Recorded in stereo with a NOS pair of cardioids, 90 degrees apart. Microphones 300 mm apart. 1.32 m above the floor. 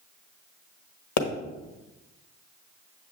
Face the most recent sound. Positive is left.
turn(degrees=65)